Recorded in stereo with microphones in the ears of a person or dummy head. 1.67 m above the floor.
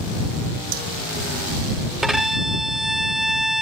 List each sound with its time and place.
0.7 s hammering: 45° right (ahead or behind)
2.0 s a violin: 5° right (ahead or behind)